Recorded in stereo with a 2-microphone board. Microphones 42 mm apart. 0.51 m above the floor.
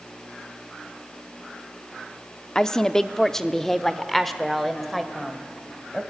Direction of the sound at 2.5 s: 15° left (ahead or behind).